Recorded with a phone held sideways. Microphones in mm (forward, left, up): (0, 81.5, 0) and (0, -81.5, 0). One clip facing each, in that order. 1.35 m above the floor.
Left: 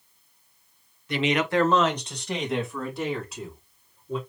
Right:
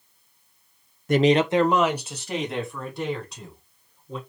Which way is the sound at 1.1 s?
45° right (ahead or behind).